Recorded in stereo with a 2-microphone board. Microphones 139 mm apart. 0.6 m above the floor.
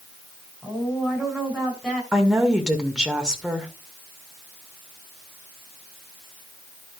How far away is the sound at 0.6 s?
About 5.5 m.